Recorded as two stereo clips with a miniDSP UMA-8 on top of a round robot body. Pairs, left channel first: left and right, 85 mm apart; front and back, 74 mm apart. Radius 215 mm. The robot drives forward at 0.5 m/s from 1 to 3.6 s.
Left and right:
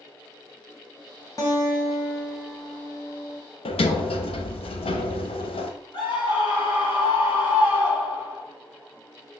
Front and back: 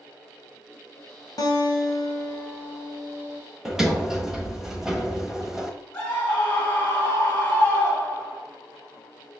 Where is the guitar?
40° left, 2 m; by 3.4 s 65° left, 1.6 m.